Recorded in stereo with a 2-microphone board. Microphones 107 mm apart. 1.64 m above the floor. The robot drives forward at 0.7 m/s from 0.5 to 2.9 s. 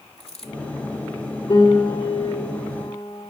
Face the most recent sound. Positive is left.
turn(degrees=45)  # may be behind; listen again after turning